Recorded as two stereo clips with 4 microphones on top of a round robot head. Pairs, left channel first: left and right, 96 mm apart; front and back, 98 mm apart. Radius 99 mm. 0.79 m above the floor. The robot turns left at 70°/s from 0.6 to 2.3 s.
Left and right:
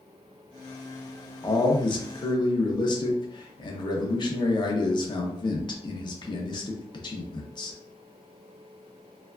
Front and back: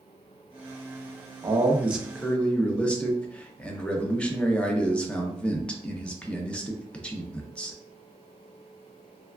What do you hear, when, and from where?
1.4 s a man speaking: 135° left, 0.7 m; by 7.8 s 75° left, 0.7 m